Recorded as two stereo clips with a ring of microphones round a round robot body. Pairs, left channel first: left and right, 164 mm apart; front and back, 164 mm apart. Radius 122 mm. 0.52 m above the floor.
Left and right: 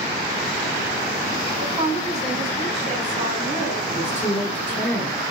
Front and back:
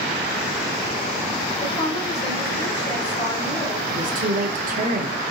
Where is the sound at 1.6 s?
50° right, 2 m.